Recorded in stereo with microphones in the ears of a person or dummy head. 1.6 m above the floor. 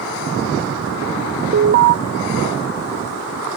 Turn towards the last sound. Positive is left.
turn(degrees=-50)  # may be behind; listen again after turning